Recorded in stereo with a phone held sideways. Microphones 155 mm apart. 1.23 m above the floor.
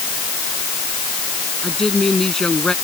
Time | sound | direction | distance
1.6 | a woman speaking | 5° left (ahead or behind) | ?